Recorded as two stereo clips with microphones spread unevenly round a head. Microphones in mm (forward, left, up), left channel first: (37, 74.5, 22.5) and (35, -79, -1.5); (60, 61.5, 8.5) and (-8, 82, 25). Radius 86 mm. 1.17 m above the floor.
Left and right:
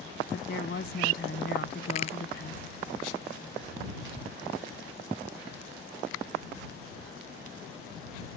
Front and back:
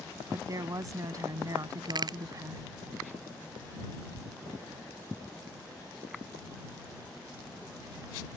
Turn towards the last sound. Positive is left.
turn(degrees=145)